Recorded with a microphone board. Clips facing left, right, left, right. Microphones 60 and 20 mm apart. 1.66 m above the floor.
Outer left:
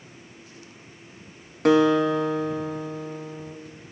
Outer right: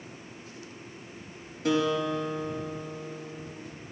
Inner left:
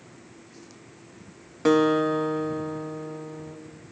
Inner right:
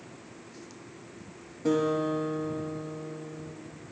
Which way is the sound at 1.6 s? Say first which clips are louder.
Outer left 8 dB, inner left 6 dB; 55° left (ahead or behind).